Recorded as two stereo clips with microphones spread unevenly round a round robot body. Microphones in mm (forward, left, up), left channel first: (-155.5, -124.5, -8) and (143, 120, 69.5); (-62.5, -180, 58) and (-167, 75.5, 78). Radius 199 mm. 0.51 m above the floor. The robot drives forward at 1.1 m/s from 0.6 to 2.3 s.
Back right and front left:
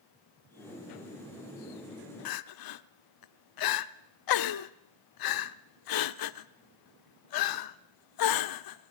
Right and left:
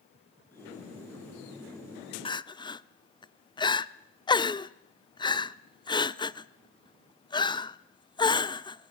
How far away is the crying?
About 0.7 m.